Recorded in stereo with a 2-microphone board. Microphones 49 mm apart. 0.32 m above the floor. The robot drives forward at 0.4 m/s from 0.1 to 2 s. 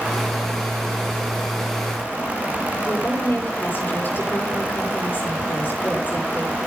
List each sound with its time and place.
2.9 s a woman speaking: 45° left (ahead or behind), 7.5 m